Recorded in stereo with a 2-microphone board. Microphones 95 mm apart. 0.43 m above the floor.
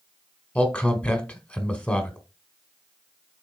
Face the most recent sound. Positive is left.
turn(degrees=15)  # may be behind; listen again after turning